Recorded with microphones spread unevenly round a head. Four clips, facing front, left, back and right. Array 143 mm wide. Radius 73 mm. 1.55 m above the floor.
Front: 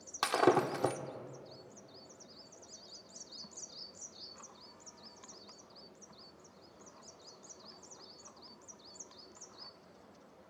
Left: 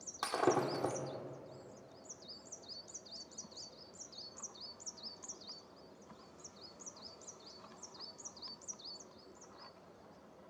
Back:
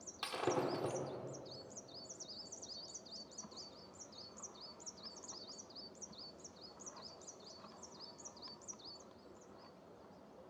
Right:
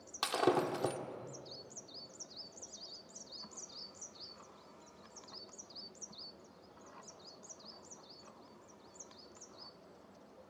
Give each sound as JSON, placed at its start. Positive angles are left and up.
{"t": 0.2, "sound": "breaking glass", "azimuth_deg": -10, "distance_m": 1.7}